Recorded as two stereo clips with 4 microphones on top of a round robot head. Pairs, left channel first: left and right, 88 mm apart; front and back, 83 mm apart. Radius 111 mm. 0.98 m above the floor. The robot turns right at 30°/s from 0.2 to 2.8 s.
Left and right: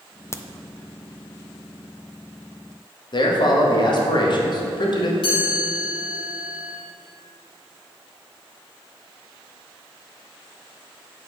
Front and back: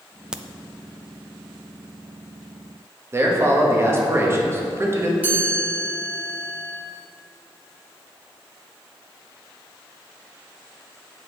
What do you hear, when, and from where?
0.3 s a crack: 105° left, 0.5 m; by 0.4 s 110° left, 0.5 m
3.1 s a man speaking: 120° left, 1.3 m
5.2 s a chime: 110° left, 2.5 m